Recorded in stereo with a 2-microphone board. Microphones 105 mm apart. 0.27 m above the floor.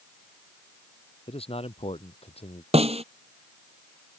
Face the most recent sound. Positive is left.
turn(degrees=-80)